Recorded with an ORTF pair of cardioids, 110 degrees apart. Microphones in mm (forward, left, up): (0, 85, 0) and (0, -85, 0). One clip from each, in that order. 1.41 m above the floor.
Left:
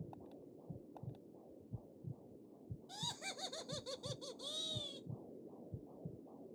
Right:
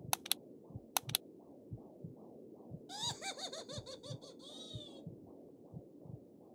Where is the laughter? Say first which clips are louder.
Right 3 dB; 25° right, 0.8 m; by 5.1 s 65° left, 0.8 m.